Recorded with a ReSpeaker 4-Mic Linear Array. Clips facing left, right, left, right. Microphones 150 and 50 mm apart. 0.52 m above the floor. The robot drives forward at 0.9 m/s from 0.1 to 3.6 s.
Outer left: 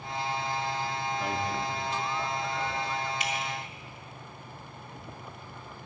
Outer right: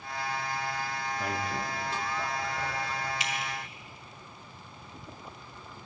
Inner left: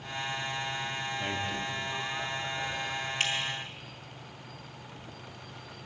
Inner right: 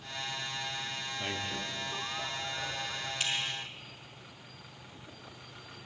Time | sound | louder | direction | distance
1.2 | a man speaking | outer left 1 dB, inner left 1 dB | centre (ahead or behind) | 0.9 m
3.2 | dripping | outer left 2 dB, inner left 2 dB | 50° left (ahead or behind) | 2.5 m